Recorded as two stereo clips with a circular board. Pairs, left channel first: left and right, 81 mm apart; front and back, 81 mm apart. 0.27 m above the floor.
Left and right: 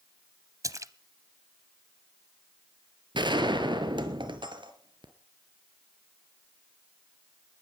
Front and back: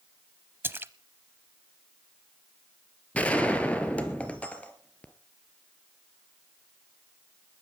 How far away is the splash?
About 0.7 m.